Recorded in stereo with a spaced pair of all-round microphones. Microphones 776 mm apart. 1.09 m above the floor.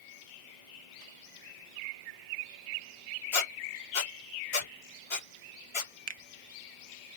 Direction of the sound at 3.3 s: 40° left (ahead or behind).